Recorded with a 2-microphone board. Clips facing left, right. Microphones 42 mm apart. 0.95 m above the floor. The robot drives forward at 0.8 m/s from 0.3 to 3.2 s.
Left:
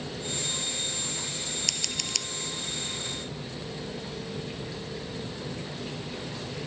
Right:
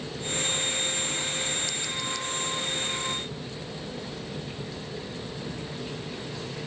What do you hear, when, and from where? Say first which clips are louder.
1.7 s scissors: right 2 dB; 75° left (ahead or behind)